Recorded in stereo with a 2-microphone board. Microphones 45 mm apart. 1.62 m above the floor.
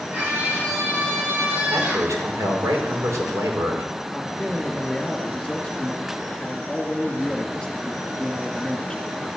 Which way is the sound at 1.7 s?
80° right.